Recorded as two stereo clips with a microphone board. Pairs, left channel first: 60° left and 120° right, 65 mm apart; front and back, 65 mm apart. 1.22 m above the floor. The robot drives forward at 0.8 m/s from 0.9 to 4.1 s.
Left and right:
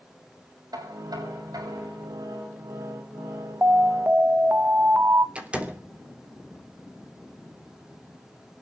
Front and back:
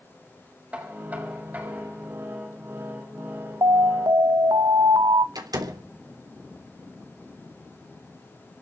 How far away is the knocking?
About 7 m.